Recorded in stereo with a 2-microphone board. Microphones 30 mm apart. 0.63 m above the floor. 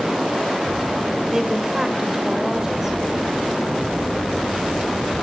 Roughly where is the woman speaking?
Centre.